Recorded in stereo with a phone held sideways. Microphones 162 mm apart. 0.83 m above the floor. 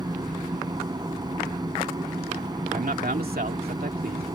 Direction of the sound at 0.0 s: 25° right (ahead or behind).